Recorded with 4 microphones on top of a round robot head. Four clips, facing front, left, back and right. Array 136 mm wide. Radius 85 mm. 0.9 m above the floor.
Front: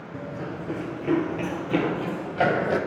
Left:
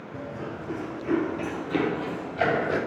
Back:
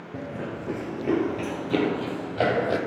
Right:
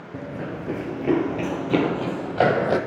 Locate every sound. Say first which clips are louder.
0.1 s running footsteps: right 4 dB, back 1 dB; 130° right, 0.9 m; by 2.8 s 95° right, 2 m